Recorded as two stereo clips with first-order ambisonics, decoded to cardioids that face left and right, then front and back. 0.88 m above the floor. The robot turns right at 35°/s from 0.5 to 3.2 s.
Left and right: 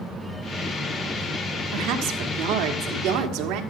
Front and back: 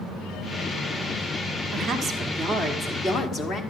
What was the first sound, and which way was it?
A woman speaking, 115° right.